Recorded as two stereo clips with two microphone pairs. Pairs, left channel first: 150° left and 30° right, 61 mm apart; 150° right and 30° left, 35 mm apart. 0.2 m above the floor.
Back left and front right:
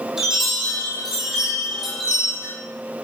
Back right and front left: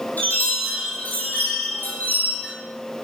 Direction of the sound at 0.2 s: 115° right.